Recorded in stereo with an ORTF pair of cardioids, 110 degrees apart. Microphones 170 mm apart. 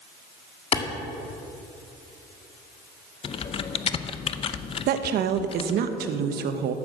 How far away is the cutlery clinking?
No cutlery clinking in this recording.